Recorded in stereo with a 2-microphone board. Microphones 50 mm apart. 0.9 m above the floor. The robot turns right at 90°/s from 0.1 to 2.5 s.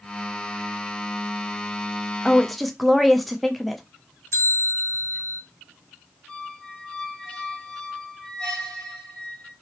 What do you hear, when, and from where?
2.2 s a woman speaking: 20° left (ahead or behind), 0.5 m; by 3.8 s centre (ahead or behind), 0.5 m
4.3 s a bell: 65° left (ahead or behind), 1.2 m
6.3 s a squeak: 10° left (ahead or behind), 2.5 m